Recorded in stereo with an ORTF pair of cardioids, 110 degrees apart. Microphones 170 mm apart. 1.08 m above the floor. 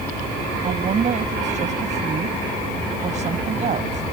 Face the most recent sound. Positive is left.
turn(degrees=-45)